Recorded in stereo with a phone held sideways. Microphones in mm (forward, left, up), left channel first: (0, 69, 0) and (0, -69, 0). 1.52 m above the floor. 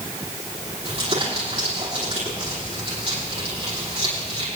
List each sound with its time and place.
0.8 s crumpling: 45° right (ahead or behind), 9 m